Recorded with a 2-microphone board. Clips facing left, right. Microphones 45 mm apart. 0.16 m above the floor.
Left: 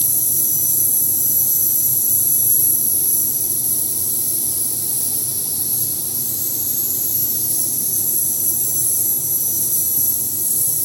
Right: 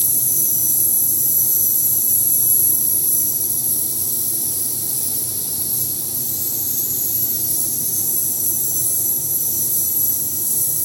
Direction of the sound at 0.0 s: 35° right (ahead or behind).